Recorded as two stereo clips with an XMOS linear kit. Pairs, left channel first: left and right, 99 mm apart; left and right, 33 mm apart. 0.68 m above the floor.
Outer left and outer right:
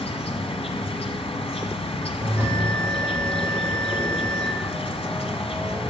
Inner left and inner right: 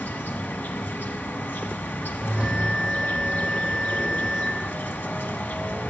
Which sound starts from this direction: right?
A bell, at 2.2 s.